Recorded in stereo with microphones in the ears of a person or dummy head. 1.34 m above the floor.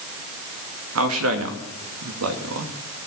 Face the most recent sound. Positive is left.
turn(degrees=-80)